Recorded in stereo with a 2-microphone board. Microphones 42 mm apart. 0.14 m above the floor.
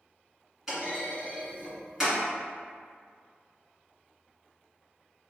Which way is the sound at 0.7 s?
10° right (ahead or behind).